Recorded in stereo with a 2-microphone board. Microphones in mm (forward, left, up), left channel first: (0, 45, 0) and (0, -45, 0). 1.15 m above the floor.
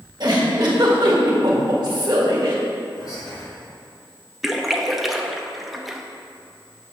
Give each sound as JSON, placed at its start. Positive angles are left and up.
{"t": 0.2, "sound": "a giggle", "side_deg": -50, "distance_m": 1.7}
{"t": 3.0, "sound": "whispering", "side_deg": 50, "distance_m": 2.5}
{"t": 4.4, "sound": "a splash", "side_deg": 0, "distance_m": 0.6}